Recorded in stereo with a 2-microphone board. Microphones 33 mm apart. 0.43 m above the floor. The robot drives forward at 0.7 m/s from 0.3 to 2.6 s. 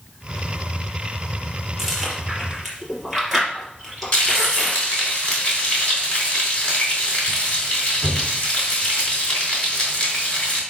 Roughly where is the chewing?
Centre.